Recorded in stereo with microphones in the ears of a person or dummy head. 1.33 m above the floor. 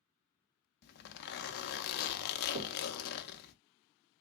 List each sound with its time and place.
0.8 s a zipper: 50° left (ahead or behind), 0.6 m
2.5 s knocking: 35° right (ahead or behind), 0.7 m